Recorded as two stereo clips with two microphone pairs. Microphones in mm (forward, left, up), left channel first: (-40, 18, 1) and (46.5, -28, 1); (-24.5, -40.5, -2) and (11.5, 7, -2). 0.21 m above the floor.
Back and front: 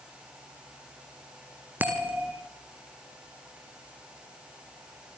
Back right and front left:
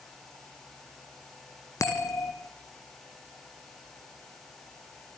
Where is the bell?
100° right, 3 m.